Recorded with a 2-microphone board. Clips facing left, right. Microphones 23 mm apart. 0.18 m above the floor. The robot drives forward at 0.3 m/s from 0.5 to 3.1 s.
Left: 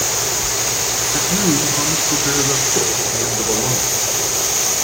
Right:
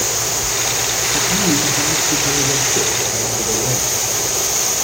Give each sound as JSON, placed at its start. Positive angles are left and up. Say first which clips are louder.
{"t": 1.1, "sound": "a man speaking", "louder": "even", "side_deg": 45, "distance_m": 1.7}